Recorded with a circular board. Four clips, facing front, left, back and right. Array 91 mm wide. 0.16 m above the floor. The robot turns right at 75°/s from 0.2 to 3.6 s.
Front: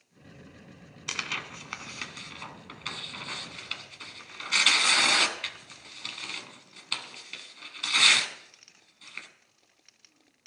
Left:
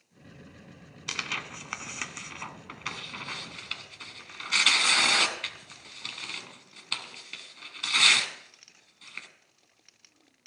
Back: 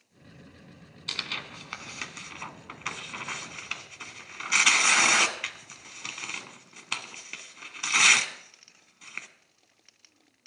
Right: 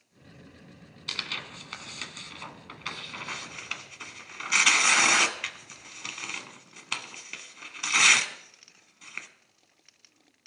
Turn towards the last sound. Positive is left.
turn(degrees=-140)